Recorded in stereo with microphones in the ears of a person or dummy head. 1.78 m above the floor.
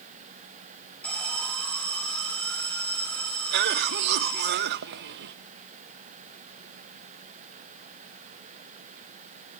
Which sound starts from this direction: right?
A cough, at 3.5 s.